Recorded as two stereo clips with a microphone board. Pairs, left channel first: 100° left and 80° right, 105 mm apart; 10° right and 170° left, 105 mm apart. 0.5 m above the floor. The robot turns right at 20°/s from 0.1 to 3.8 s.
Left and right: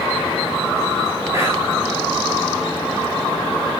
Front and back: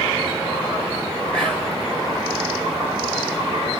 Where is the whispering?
85° right, 1.4 m; by 1.7 s 80° right, 1.4 m.